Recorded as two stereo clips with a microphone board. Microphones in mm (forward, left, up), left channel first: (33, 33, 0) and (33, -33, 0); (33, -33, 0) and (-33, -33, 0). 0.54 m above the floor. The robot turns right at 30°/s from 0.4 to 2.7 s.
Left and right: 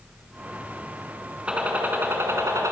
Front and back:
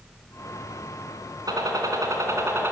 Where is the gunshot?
165° right, 3 m; by 2.7 s 130° right, 3 m.